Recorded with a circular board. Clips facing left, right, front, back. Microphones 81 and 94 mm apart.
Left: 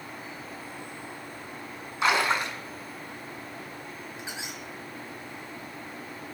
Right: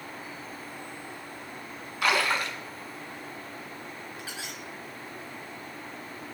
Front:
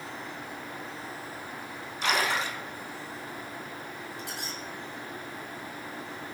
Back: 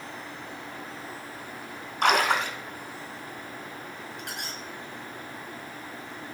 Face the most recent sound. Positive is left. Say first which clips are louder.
# left 1 dB, even
turn(degrees=155)